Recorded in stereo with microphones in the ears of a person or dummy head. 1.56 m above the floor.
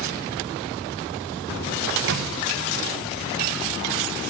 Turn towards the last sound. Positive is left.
turn(degrees=-65)  # may be behind; listen again after turning